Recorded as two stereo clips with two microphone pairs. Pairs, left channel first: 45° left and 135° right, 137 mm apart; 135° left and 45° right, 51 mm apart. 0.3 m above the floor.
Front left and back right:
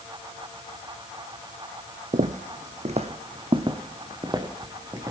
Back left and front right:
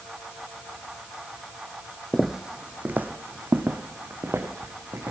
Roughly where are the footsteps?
Behind right.